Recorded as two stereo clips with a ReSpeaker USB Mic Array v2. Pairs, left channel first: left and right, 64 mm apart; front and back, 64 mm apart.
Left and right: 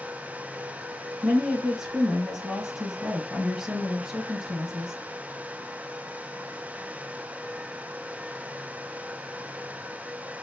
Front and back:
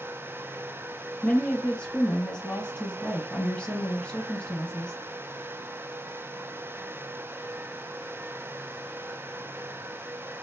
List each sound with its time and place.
1.2 s a woman speaking: 40° right, 1.0 m